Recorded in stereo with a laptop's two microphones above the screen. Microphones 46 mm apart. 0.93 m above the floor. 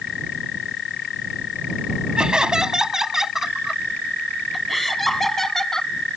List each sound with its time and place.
2.2 s laughter: 15° right (ahead or behind); by 5.9 s 10° left (ahead or behind)